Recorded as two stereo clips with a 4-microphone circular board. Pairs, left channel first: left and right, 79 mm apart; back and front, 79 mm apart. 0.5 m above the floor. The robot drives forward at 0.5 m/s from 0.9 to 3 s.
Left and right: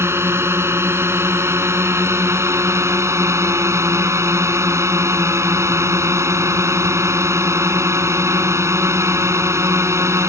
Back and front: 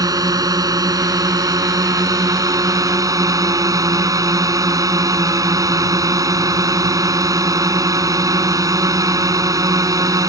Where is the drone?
35° right; by 10.3 s 40° right.